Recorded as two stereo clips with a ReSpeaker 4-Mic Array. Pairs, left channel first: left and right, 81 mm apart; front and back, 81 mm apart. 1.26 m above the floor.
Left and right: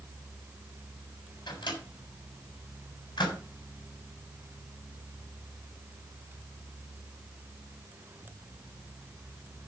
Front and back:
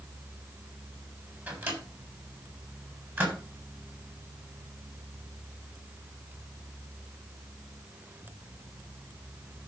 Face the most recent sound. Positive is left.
turn(degrees=115)